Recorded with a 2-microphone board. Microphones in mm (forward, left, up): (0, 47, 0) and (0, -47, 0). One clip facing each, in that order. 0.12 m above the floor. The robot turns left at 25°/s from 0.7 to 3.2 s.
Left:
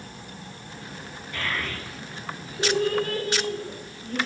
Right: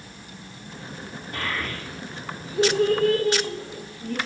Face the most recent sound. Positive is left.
turn(degrees=-80)